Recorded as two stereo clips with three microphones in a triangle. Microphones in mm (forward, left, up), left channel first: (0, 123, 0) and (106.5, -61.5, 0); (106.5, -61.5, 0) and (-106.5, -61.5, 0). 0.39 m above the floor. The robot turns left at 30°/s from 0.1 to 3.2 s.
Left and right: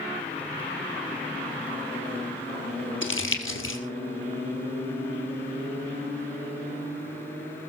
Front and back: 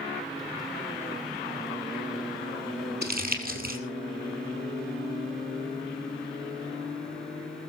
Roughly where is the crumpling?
Behind left.